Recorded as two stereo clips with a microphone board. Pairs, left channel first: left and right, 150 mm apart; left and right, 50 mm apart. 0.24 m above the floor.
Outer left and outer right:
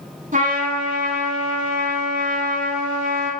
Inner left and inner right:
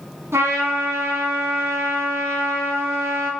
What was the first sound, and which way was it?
A trumpet, 60° right (ahead or behind).